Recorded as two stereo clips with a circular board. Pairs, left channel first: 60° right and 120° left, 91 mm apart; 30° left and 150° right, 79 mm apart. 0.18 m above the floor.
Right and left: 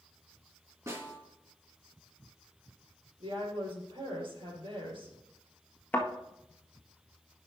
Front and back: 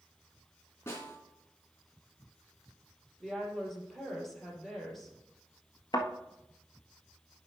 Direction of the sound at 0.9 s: 75° left.